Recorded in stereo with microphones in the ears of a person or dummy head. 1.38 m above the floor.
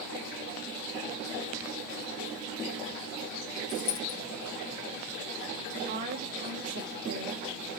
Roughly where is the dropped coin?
Left.